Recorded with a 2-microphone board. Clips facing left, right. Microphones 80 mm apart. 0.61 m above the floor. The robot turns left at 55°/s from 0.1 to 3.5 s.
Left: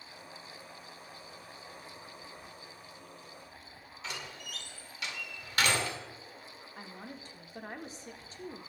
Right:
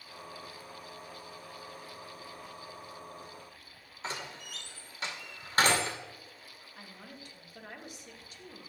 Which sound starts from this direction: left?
A woman speaking, at 6.8 s.